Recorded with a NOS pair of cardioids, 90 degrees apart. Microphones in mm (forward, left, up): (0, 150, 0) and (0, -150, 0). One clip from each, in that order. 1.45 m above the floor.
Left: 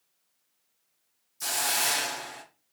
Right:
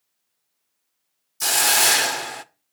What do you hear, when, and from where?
1.4 s a hiss: 45° right, 0.5 m